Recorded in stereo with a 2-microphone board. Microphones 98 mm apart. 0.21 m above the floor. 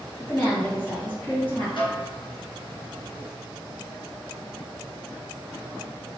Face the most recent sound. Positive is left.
turn(degrees=60)  # may be behind; listen again after turning